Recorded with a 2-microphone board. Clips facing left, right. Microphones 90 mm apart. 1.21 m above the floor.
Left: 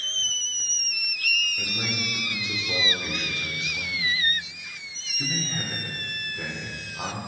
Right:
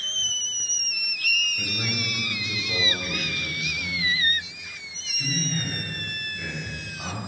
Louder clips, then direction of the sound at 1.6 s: Right 1 dB; 10° left (ahead or behind).